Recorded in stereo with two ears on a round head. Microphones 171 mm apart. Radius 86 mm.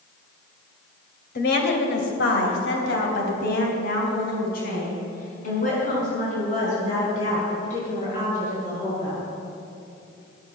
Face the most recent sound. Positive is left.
turn(degrees=35)  # may be behind; listen again after turning